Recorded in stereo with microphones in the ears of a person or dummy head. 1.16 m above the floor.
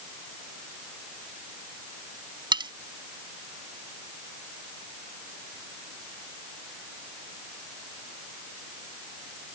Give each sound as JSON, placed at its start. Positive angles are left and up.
{"t": 2.5, "sound": "cutlery clinking", "side_deg": -25}